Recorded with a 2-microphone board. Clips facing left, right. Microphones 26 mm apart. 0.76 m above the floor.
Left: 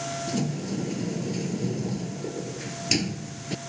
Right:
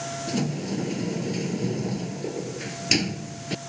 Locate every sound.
0.3 s a sliding door: 20° right (ahead or behind)